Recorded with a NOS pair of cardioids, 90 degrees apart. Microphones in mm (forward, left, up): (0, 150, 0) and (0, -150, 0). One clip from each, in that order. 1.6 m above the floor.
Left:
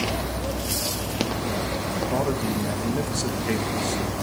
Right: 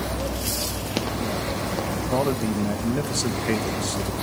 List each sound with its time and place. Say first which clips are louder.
2.1 s a man speaking: right 3 dB; 25° right, 2.5 m